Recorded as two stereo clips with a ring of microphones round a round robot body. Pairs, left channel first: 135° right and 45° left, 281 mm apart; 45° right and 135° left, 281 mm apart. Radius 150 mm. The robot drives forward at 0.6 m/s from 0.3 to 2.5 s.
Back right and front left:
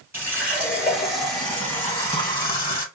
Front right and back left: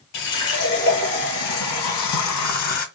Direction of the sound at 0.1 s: 40° right.